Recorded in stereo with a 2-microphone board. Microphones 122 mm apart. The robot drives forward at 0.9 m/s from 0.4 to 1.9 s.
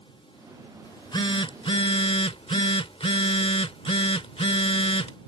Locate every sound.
0.8 s a phone buzzing: 40° left (ahead or behind); by 5.2 s 55° left (ahead or behind)